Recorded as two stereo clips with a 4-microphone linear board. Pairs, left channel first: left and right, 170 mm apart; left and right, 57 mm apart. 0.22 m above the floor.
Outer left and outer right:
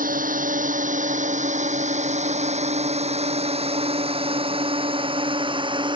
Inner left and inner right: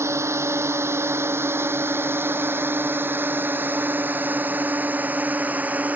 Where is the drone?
55° right (ahead or behind); by 6.0 s 30° right (ahead or behind).